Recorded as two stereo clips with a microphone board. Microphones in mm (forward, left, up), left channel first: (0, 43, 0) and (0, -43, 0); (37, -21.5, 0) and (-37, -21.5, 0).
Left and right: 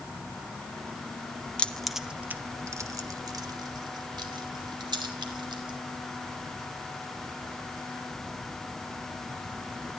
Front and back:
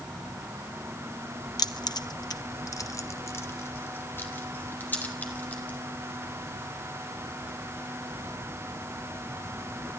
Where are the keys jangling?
15° left, 0.9 m; by 5.8 s 70° right, 3.5 m.